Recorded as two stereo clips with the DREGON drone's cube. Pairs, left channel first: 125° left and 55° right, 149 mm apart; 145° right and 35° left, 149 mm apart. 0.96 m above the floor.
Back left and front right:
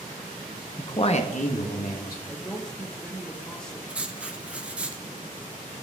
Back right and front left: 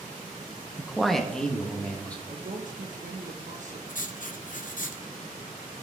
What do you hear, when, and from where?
0.8 s a man speaking: 100° left, 0.6 m; by 2.2 s 135° left, 1.9 m
2.3 s a woman speaking: 40° left, 1.1 m
3.9 s writing: 135° right, 0.6 m